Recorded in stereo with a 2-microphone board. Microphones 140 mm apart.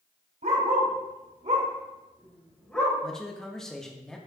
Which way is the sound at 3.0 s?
5° left (ahead or behind).